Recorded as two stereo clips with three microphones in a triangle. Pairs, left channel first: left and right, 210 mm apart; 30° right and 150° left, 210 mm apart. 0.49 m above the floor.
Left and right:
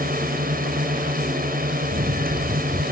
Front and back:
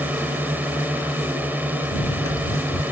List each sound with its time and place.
0.0 s a drone: 130° right
1.9 s running footsteps: 40° right